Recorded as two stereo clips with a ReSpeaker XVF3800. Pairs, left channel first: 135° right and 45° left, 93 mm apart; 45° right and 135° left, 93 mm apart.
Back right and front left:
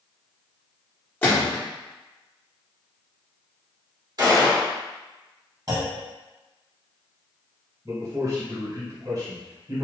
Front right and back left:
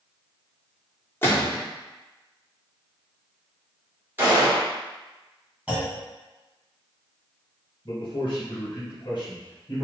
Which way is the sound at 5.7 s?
65° left.